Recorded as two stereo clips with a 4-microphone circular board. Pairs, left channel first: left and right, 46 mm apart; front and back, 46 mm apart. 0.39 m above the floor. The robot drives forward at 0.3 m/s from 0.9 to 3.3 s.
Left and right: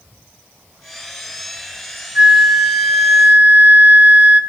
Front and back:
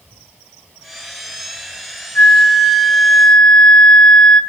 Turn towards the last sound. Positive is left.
turn(degrees=-65)